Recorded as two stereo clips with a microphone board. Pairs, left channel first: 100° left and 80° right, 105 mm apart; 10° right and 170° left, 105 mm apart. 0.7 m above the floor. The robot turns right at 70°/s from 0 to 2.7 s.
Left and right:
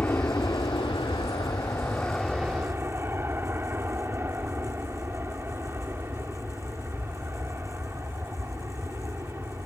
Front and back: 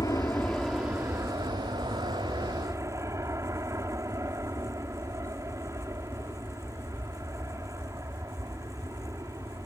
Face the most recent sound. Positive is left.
turn(degrees=-140)